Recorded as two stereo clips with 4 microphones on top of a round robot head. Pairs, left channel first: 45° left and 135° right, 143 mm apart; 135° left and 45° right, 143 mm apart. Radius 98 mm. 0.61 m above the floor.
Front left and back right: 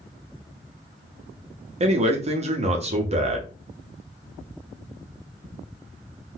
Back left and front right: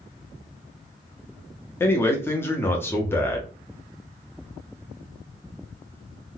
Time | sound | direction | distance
1.8 | a man speaking | 155° right | 0.8 m